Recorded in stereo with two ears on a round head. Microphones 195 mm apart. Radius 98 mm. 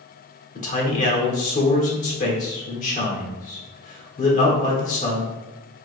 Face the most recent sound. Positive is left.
turn(degrees=35)  # may be behind; listen again after turning